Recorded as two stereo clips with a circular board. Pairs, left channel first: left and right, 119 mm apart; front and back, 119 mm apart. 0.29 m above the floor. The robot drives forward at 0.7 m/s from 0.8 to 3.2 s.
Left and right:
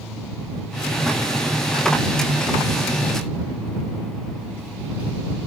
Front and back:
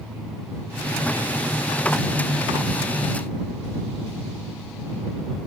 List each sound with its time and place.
Only background noise.